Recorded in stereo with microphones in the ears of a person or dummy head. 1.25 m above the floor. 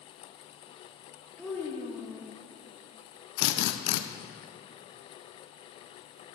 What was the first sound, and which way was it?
A child speaking, 5° left (ahead or behind).